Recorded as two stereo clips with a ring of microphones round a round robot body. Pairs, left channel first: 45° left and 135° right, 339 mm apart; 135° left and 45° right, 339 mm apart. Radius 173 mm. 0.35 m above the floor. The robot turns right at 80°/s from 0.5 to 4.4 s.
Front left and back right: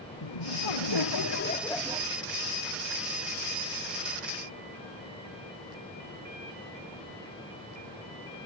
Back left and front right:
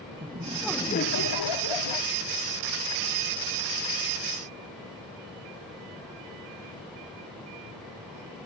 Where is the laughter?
30° left; by 2.1 s 155° left.